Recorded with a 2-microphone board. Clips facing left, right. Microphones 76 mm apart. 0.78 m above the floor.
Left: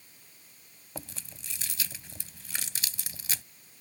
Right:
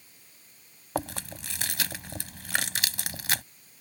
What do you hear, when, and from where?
0.9 s chewing: 65° right (ahead or behind)